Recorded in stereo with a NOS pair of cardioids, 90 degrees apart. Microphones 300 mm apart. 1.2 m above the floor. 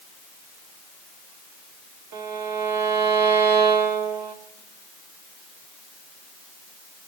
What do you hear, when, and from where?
2.1 s a violin: 65° right, 2 m